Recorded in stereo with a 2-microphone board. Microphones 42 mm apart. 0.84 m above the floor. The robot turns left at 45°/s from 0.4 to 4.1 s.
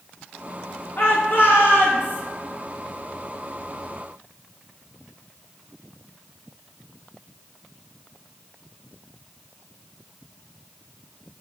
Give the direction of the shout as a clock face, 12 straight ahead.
8 o'clock.